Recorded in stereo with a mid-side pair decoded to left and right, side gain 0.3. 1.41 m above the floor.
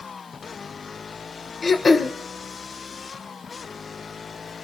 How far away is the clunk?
No clunk in this recording.